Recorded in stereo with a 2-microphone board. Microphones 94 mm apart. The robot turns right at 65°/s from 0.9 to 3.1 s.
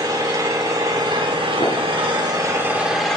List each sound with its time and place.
0.0 s an engine running: 135° right, 2 m; by 3.2 s 5° left, 2 m
1.6 s a gunshot: 75° left (ahead or behind), 4.5 m; by 1.8 s 60° left (ahead or behind), 4.5 m